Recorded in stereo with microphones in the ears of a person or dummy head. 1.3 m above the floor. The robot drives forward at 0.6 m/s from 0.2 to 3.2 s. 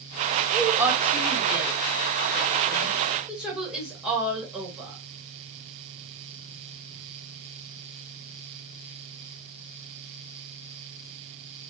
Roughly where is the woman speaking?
Centre.